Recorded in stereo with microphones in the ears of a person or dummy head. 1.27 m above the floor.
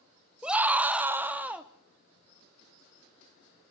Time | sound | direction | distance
0.4 | a scream | 5° right (ahead or behind) | 0.9 m